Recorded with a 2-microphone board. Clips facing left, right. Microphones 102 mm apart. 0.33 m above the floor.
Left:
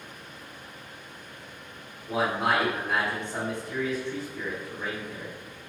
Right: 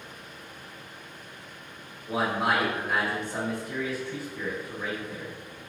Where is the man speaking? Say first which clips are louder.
Even; 5° right (ahead or behind), 1.2 m.